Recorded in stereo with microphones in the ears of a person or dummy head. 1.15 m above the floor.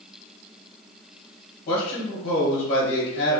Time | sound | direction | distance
1.7 | a man speaking | 30° left (ahead or behind) | 0.8 m